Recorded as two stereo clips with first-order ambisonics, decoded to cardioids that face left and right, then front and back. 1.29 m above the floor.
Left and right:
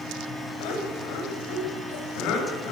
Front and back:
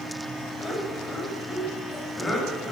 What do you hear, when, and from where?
0.6 s laughter: 85° left, 8.5 m